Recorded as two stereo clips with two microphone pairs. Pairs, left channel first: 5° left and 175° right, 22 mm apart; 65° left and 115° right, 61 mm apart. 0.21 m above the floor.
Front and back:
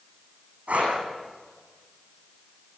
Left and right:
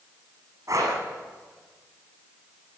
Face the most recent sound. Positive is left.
turn(degrees=-155)